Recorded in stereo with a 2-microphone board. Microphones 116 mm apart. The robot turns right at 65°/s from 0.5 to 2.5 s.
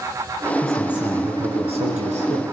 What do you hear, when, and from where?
0.6 s a man speaking: 170° left, 5 m; by 2.4 s 70° right, 5 m